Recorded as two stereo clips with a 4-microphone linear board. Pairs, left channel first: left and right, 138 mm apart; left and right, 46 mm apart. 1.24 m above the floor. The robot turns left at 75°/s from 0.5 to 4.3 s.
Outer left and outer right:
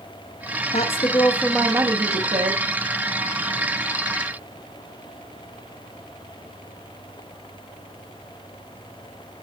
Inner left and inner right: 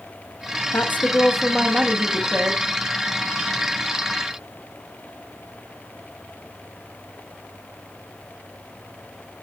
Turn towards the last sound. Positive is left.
turn(degrees=150)